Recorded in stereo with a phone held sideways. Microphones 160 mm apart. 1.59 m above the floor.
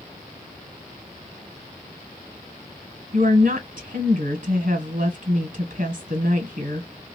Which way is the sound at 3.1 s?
55° right (ahead or behind).